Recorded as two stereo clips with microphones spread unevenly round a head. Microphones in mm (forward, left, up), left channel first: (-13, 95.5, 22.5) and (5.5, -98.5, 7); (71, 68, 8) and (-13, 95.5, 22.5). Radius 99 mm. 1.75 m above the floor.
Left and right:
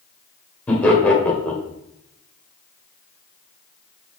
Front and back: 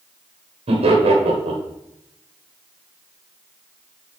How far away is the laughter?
About 1.7 m.